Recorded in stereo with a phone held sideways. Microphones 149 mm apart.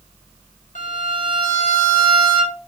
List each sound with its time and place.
0.8 s a violin: 60° left (ahead or behind), 1.3 m